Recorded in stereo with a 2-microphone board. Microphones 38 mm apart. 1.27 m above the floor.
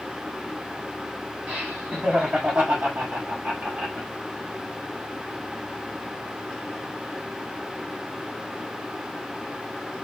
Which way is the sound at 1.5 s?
45° right (ahead or behind).